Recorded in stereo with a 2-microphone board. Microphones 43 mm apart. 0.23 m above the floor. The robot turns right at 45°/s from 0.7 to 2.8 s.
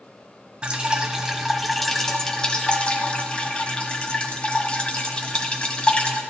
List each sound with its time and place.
0.6 s dripping: 45° right, 1.4 m; by 6.2 s 50° left, 1.4 m